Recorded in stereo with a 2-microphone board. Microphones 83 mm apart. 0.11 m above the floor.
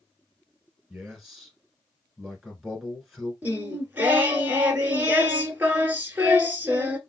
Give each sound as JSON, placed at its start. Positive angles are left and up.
{"t": 0.9, "sound": "a man speaking", "side_deg": -5, "distance_m": 1.2}
{"t": 3.4, "sound": "singing", "side_deg": -25, "distance_m": 1.0}